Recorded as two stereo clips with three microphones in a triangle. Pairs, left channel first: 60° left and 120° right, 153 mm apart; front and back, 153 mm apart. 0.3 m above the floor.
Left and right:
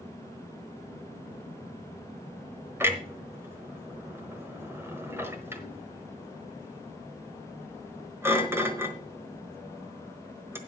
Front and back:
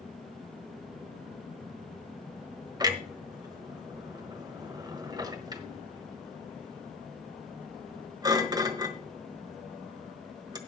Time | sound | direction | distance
2.8 | a clunk | 170° right | 1.3 m